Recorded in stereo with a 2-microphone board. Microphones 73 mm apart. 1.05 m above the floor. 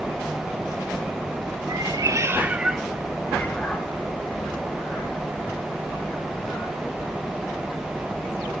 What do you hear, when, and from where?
1.7 s a cat meowing: 60° right (ahead or behind), 1.0 m; by 6.8 s 40° left (ahead or behind), 4.5 m